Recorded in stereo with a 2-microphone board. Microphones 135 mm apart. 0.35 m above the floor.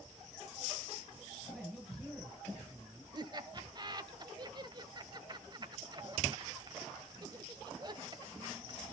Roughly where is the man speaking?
Centre.